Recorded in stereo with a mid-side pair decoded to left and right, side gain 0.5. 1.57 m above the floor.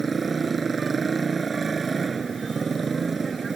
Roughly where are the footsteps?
No footsteps in this recording.